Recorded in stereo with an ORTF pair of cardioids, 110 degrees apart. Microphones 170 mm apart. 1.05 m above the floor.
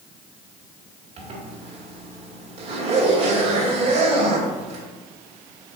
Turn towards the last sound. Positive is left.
turn(degrees=-40)